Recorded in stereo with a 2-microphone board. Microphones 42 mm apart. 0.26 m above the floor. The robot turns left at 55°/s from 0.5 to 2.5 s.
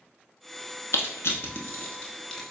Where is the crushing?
80° left, 0.8 m; by 2.5 s 10° left (ahead or behind), 0.8 m.